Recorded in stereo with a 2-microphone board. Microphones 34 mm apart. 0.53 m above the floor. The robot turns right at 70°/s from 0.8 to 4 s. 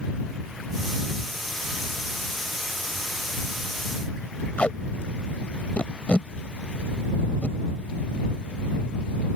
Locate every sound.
4.6 s tape being pulled: 35° left (ahead or behind)